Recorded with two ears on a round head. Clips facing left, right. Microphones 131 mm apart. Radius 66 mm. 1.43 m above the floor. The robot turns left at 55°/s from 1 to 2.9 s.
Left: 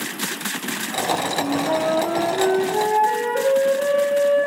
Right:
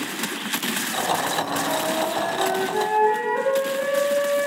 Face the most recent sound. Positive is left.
turn(degrees=45)